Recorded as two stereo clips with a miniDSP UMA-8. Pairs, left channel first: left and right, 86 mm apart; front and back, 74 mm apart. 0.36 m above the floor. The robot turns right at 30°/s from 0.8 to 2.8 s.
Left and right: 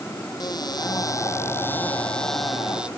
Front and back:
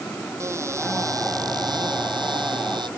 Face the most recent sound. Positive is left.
turn(degrees=-170)